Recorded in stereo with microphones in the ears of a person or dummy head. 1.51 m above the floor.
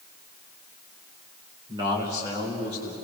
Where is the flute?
I don't hear a flute.